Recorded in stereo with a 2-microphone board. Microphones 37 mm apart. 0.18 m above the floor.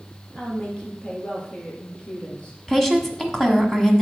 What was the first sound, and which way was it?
A woman speaking, 30° left (ahead or behind).